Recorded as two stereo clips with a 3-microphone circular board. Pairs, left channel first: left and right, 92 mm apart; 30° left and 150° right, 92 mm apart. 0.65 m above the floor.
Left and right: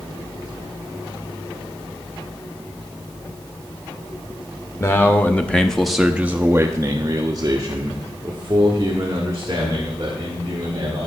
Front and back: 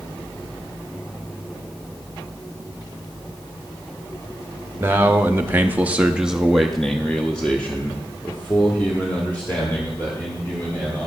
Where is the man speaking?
150° left, 1.0 m; by 11.1 s 40° right, 3 m.